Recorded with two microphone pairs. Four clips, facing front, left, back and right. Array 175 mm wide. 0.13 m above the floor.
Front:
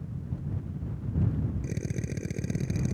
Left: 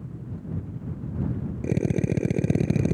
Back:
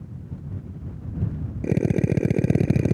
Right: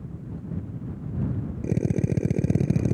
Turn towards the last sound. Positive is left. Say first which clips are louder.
# left 1 dB, back 13 dB
turn(degrees=155)